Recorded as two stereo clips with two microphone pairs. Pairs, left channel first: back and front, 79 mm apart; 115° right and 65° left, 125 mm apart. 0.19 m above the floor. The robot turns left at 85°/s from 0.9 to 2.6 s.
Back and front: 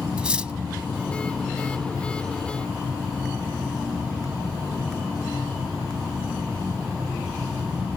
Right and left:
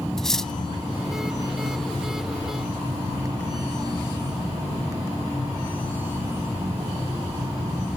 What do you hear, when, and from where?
0.2 s cutlery clinking: 45° right, 0.5 m